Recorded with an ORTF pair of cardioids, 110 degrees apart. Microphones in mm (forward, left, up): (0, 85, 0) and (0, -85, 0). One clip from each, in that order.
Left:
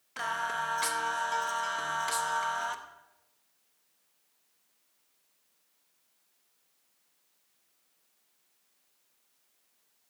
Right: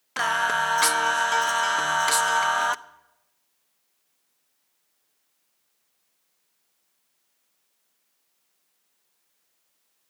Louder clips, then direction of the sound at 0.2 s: Right 9 dB; 45° right.